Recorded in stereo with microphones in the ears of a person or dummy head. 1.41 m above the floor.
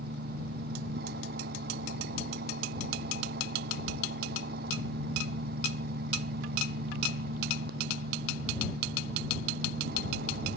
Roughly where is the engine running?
Right.